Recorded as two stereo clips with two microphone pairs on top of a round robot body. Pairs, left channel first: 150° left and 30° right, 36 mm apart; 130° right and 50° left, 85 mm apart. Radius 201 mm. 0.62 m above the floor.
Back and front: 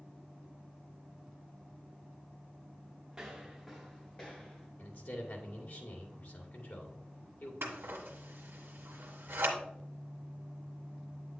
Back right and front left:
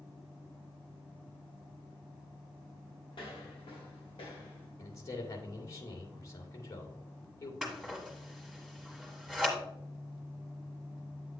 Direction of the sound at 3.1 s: 110° right.